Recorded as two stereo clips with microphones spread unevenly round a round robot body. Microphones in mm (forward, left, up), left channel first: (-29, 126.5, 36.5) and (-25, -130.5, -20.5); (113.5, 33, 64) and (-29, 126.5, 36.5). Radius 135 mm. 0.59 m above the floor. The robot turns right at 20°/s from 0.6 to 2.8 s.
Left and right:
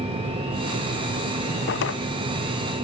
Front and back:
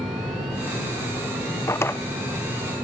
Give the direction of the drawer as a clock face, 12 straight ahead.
11 o'clock.